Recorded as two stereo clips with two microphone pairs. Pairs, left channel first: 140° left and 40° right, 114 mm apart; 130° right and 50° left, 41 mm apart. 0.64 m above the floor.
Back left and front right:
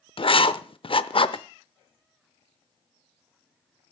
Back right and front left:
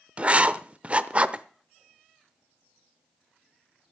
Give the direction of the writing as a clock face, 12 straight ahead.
9 o'clock.